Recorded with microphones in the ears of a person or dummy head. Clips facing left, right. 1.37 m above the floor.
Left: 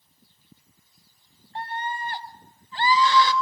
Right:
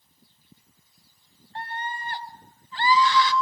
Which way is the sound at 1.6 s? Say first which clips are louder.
Left 3 dB; 15° left (ahead or behind).